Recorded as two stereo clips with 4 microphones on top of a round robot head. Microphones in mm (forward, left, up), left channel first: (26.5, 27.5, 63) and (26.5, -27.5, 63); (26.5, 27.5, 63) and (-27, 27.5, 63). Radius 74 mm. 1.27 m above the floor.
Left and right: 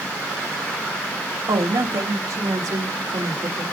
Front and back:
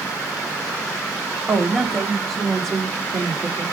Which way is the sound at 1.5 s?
90° right.